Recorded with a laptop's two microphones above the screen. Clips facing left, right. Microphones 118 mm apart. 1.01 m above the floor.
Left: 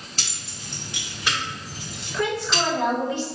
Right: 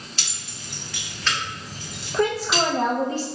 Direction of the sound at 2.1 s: 40° right (ahead or behind).